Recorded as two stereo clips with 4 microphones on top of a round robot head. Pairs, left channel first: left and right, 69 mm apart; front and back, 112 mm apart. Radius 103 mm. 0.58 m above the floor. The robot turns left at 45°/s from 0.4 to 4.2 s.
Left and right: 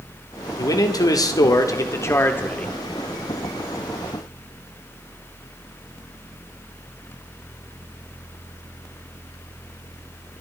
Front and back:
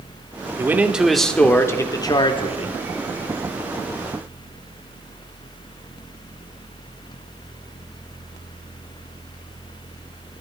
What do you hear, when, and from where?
0.6 s a man speaking: 115° left, 2 m; by 2.8 s 15° left, 2 m